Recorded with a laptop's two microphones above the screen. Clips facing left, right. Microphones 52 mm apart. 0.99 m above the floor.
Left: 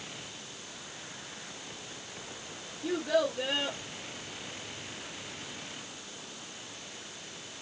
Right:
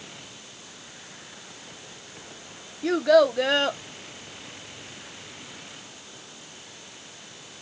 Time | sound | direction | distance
2.8 | a child speaking | 85° right | 0.6 m